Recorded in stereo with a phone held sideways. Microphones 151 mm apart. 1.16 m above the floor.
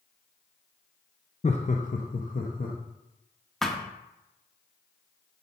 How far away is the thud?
About 0.9 m.